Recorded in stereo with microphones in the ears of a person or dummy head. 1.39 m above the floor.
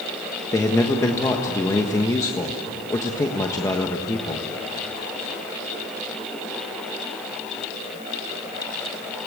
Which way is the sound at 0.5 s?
15° left (ahead or behind).